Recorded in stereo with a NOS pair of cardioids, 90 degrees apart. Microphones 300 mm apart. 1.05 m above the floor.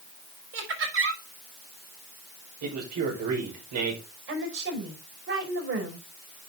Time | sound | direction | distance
0.5 | laughter | 45° right | 5 m
2.6 | a man speaking | 65° right | 5 m
4.3 | a woman speaking | 45° right | 5 m